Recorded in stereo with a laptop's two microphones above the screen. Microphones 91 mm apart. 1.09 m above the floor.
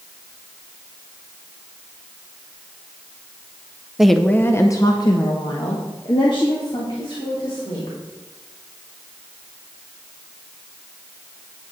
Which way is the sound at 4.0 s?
5° right (ahead or behind).